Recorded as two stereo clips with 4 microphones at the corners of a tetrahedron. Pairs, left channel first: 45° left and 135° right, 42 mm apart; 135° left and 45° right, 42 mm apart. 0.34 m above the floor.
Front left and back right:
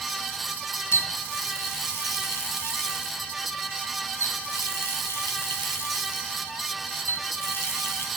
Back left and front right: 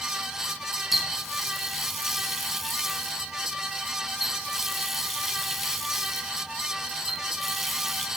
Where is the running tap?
40° left, 2 m.